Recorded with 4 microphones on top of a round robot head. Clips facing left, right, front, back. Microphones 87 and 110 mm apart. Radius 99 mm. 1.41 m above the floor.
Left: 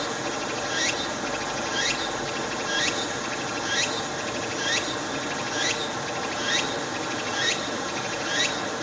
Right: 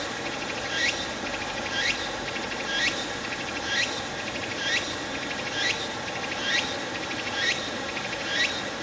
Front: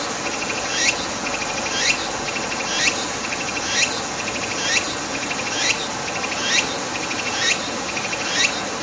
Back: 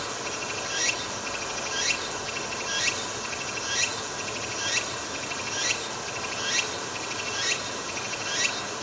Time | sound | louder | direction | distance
0.0 | running water | left 3 dB, front 8 dB | 20° left | 1.6 m